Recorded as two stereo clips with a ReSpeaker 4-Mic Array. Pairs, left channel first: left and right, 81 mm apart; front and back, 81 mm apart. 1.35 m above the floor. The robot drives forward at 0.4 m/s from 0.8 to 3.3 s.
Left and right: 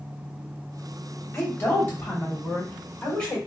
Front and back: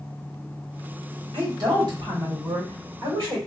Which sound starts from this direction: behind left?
A woman speaking, at 1.3 s.